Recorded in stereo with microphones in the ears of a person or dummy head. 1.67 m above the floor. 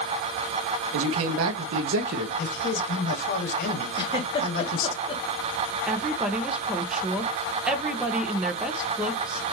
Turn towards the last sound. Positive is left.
turn(degrees=-10)  # may be behind; listen again after turning